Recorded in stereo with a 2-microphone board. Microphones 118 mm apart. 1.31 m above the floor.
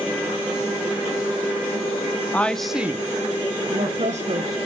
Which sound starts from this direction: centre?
A woman speaking, at 2.3 s.